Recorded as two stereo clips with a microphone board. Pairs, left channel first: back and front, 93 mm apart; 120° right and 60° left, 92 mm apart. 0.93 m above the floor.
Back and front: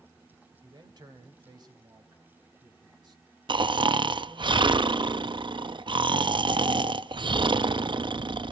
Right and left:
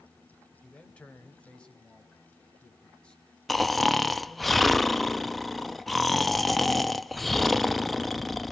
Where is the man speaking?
45° right, 3 m; by 4.5 s 40° right, 7 m.